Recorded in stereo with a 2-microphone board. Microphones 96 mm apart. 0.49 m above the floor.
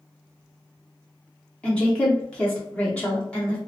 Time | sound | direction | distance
1.6 | a woman speaking | 10° left (ahead or behind) | 0.8 m